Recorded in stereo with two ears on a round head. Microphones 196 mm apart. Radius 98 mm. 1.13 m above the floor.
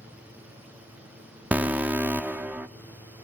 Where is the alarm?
5° right (ahead or behind), 0.6 m.